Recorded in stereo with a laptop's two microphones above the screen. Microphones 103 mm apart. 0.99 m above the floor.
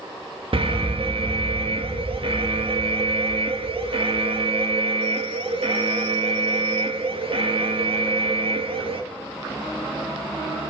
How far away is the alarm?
About 2 m.